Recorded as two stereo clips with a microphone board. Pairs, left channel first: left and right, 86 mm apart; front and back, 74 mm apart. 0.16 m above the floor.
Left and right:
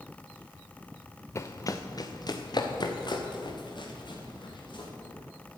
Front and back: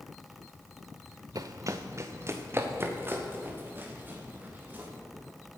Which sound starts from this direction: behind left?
Running footsteps, at 1.4 s.